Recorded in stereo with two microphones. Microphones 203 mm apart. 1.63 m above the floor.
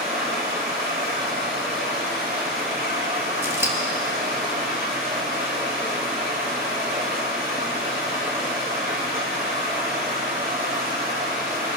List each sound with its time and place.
0.0 s running water: 50° right (ahead or behind), 3 m
3.4 s scissors: 10° right (ahead or behind), 1.3 m